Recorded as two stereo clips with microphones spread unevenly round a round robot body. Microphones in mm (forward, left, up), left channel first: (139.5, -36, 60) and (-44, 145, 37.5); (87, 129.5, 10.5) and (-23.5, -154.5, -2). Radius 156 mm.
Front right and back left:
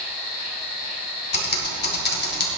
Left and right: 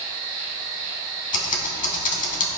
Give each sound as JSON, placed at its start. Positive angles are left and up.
{"t": 0.0, "sound": "an insect", "azimuth_deg": -75, "distance_m": 3.0}
{"t": 1.3, "sound": "typing on a keyboard", "azimuth_deg": 5, "distance_m": 2.5}